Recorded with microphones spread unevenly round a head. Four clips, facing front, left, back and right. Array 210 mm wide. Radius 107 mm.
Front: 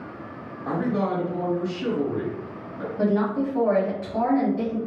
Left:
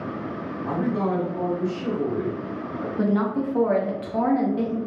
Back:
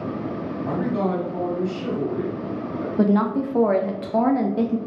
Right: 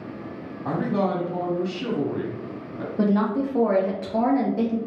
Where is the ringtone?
No ringtone in this recording.